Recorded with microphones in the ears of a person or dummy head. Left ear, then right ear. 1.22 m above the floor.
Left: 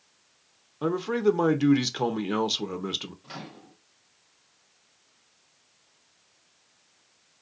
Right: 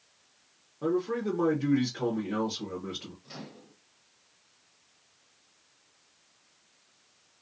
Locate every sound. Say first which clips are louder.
0.8 s a man speaking: left 5 dB; 65° left (ahead or behind), 0.6 m
3.2 s a microwave: left 4 dB; 35° left (ahead or behind), 0.7 m